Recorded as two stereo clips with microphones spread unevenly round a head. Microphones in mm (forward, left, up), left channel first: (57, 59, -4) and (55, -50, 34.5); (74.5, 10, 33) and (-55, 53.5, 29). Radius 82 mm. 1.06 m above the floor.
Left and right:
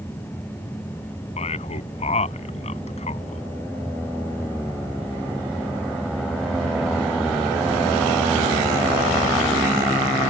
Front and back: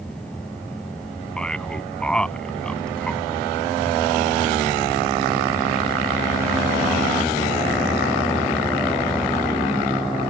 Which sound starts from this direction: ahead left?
A man speaking, at 1.4 s.